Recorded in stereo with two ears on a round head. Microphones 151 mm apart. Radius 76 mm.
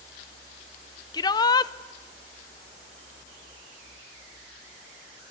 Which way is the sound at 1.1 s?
25° left (ahead or behind).